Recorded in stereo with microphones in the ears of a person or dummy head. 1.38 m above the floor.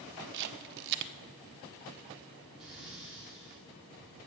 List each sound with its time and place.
0.3 s a camera shutter: 60° right (ahead or behind), 0.8 m
2.6 s breathing: 5° right (ahead or behind), 3 m